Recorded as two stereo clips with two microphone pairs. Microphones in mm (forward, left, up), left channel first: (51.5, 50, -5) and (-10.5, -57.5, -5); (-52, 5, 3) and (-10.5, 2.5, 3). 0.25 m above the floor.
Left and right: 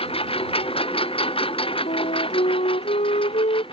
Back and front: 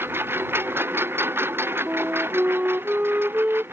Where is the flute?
50° left.